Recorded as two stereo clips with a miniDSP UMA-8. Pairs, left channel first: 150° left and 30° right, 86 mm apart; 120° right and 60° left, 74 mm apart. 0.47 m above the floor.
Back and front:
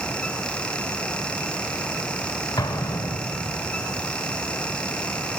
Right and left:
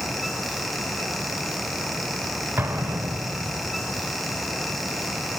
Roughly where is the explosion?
Behind left.